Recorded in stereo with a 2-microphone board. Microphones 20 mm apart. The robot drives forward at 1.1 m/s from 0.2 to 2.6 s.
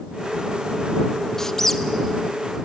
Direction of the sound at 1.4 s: 25° left (ahead or behind).